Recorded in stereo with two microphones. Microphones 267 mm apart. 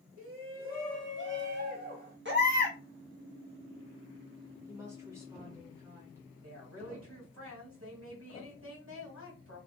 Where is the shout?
60° right (ahead or behind), 1.1 m; by 2.1 s 35° right (ahead or behind), 1.9 m.